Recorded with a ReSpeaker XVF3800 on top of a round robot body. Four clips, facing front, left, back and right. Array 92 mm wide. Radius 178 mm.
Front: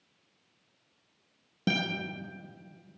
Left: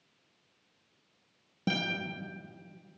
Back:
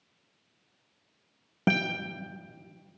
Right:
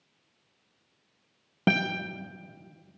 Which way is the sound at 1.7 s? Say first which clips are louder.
Right 7 dB, back 3 dB; 125° right.